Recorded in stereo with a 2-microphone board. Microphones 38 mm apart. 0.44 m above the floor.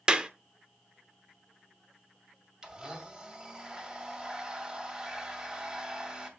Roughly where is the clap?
Right.